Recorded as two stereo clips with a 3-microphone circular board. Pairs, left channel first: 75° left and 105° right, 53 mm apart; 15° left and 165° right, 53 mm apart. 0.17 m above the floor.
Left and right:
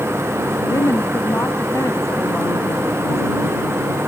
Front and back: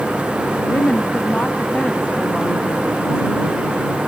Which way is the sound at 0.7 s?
70° left.